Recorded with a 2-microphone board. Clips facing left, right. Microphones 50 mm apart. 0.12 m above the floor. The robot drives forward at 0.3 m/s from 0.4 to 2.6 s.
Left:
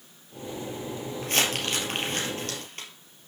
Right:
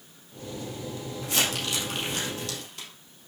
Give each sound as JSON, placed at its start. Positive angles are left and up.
{"t": 1.2, "sound": "crumpling", "side_deg": 50, "distance_m": 2.5}